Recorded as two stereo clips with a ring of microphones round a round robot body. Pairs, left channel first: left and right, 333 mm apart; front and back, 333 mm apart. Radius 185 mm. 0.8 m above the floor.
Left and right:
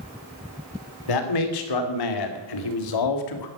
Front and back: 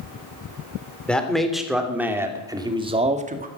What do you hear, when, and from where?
1.1 s a man speaking: 85° left, 3 m; by 3.5 s 115° left, 1.8 m